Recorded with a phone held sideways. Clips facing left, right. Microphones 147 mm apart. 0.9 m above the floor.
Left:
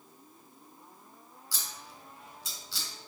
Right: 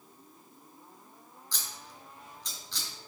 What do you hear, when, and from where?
1.5 s scissors: 5° left (ahead or behind), 2.5 m